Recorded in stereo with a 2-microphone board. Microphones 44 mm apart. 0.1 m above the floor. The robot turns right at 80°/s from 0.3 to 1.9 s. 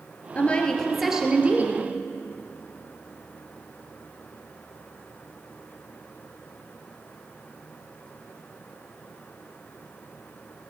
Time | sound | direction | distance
0.3 | a woman speaking | 130° left | 2 m